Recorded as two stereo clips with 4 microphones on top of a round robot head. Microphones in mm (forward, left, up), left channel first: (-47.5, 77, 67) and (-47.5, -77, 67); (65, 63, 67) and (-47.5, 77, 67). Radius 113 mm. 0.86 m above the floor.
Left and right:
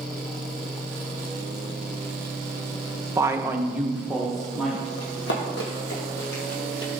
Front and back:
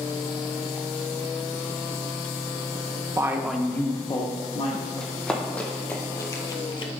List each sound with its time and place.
3.1 s a woman speaking: 150° right, 1.0 m; by 4.9 s 5° left, 1.9 m
5.0 s running footsteps: 80° left, 3 m; by 6.9 s 15° left, 1.3 m